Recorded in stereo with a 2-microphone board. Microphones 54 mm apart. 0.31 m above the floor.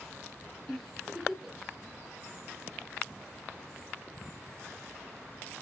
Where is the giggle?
Centre (ahead or behind), 4 m.